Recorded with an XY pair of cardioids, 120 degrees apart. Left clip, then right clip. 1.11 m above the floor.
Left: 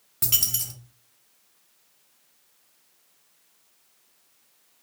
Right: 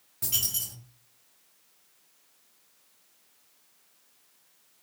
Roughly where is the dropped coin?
Ahead left.